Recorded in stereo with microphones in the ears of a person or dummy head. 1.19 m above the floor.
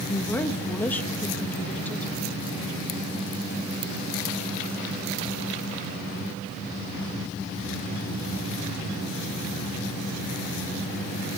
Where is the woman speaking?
Centre (ahead or behind), 1.3 m.